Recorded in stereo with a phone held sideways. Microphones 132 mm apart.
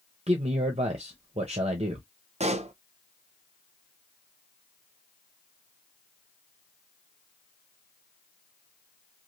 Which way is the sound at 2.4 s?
55° right (ahead or behind).